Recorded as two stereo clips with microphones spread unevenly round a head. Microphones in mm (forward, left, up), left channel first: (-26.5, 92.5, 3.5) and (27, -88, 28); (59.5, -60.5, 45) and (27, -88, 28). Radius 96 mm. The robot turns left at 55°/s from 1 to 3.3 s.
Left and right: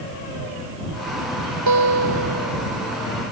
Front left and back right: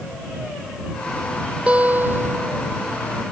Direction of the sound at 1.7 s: 70° right.